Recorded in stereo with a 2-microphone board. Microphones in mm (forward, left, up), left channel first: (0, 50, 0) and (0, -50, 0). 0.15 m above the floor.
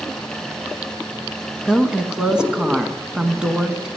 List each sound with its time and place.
1.6 s a woman speaking: 10° right (ahead or behind), 1.1 m